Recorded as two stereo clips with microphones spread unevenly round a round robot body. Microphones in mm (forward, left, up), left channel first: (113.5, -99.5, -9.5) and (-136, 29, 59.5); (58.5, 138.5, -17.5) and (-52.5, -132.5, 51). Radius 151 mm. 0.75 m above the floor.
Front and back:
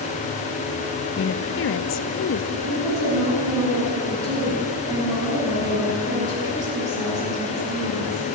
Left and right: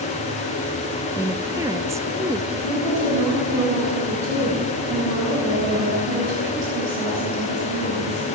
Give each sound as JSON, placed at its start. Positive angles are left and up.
{"t": 1.2, "sound": "a woman speaking", "azimuth_deg": -25, "distance_m": 0.7}
{"t": 2.5, "sound": "a woman speaking", "azimuth_deg": -130, "distance_m": 7.5}